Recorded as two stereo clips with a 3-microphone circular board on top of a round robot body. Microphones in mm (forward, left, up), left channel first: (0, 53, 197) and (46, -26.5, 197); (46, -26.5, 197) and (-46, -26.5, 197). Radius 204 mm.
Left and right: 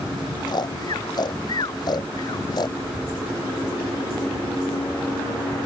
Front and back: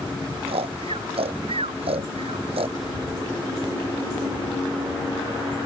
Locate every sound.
0.5 s snoring: 165° left
2.8 s a bird: 145° right